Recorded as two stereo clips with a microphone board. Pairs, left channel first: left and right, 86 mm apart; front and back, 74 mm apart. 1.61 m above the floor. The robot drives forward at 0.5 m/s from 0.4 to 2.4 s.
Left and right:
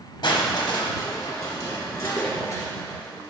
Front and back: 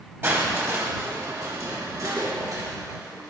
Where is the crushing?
125° left, 1.3 m; by 3.3 s 150° left, 2 m.